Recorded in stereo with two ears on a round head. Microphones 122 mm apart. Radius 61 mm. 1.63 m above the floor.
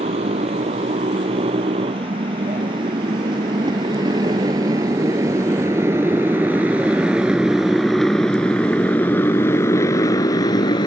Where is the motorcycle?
45° right (ahead or behind); by 10.9 s 35° left (ahead or behind).